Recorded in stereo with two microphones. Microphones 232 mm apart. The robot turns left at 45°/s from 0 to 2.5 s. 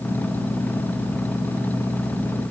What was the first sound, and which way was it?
Only background noise.